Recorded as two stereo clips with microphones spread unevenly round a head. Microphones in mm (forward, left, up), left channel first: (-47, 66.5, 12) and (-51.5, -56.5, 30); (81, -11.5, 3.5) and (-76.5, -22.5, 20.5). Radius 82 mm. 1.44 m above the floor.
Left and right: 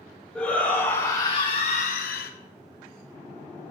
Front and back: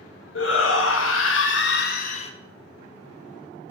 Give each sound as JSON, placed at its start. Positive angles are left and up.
{"t": 0.3, "sound": "a shout", "azimuth_deg": 0, "distance_m": 1.7}